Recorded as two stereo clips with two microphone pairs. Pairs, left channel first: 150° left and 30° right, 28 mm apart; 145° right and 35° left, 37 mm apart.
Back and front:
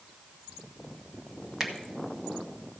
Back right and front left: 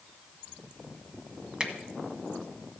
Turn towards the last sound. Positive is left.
turn(degrees=10)